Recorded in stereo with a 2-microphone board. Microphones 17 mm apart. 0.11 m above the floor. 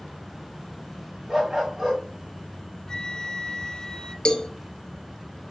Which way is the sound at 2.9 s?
50° left (ahead or behind).